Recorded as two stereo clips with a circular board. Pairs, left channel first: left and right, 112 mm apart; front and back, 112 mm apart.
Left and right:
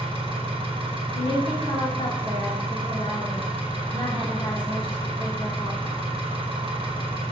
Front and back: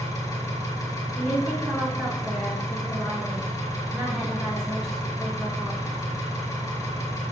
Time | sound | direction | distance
0.0 | an engine running | 55° right | 0.9 m
1.1 | a woman speaking | 95° left | 2 m